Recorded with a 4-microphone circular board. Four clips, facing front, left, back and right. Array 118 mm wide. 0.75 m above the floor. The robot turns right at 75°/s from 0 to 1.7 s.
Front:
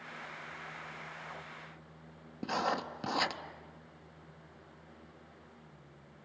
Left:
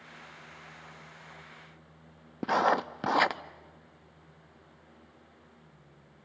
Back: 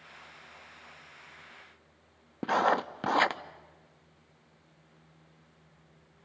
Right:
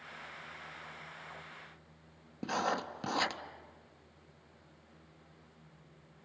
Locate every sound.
2.4 s writing: 125° left, 0.8 m